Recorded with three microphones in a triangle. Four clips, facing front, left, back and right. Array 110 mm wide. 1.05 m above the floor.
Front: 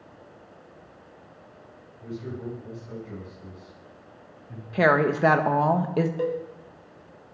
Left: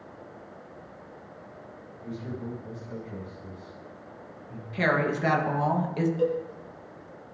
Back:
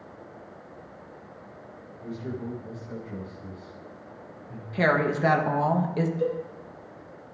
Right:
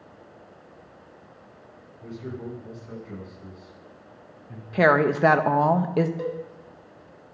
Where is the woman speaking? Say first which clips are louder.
Right 7 dB, front 3 dB; 65° right, 1.4 m.